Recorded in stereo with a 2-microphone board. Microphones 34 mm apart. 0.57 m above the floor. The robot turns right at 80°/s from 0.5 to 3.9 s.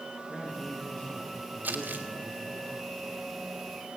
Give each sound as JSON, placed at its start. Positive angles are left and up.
{"t": 0.3, "sound": "a man speaking", "azimuth_deg": 0, "distance_m": 6.0}
{"t": 1.6, "sound": "crumpling", "side_deg": -60, "distance_m": 1.5}